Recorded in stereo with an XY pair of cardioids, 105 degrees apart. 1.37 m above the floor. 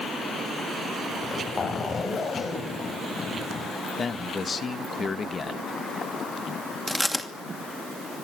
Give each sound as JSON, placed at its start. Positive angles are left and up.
{"t": 1.1, "sound": "a zipper", "azimuth_deg": 35, "distance_m": 7.0}
{"t": 4.0, "sound": "a man speaking", "azimuth_deg": 35, "distance_m": 1.8}
{"t": 6.9, "sound": "chewing", "azimuth_deg": 5, "distance_m": 2.5}